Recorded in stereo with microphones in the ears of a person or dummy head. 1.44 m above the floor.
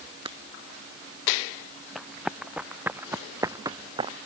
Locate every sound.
0.2 s breaking glass: 25° right (ahead or behind)
1.9 s running footsteps: 5° left (ahead or behind); by 4.2 s 30° right (ahead or behind)